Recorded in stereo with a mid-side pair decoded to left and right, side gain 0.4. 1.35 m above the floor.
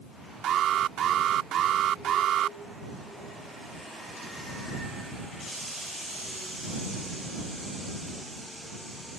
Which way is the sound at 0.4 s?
70° right.